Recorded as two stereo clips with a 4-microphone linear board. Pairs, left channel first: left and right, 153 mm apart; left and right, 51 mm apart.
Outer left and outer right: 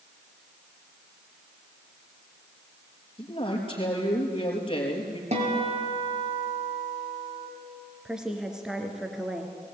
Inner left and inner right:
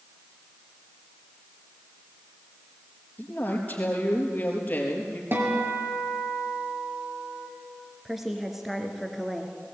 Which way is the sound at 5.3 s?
45° right (ahead or behind).